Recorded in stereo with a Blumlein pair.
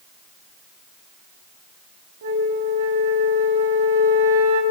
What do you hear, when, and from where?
2.2 s a flute: 60° right, 4 m